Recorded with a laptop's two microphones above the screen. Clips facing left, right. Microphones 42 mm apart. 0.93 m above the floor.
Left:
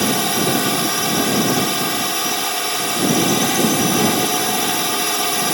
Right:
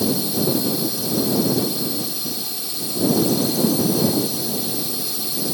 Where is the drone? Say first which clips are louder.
Left 3 dB; 65° left (ahead or behind).